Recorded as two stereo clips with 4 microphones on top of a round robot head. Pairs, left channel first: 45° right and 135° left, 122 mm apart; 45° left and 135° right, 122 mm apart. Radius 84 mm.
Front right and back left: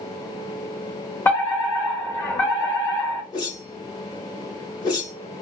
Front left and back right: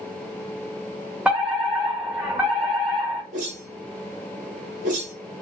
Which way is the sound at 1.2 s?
70° right.